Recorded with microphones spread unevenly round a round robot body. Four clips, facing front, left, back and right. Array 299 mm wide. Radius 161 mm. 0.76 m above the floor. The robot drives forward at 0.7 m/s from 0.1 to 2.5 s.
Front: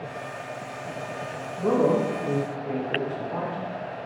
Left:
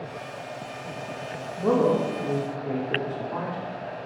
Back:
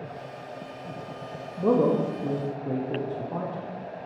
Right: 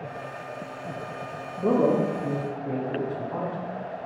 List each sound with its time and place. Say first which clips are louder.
1.6 s a man speaking: even, even; 165° right, 0.6 m; by 4.1 s 175° right, 1.0 m